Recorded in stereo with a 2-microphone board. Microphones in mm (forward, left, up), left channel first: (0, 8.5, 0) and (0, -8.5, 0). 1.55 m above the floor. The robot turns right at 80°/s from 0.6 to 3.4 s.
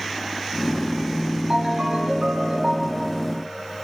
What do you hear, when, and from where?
1.5 s a ringtone: 120° right, 9 m; by 3.1 s 10° left, 9 m